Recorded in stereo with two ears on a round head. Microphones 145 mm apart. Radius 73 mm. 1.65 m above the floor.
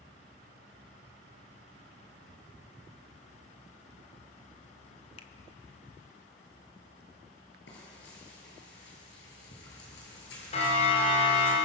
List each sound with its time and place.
5.2 s a finger snap: 35° left (ahead or behind), 1.1 m
7.7 s frying: 80° left, 8 m
10.5 s a siren: 40° left (ahead or behind), 6.5 m; by 11.6 s 45° left (ahead or behind), 5.5 m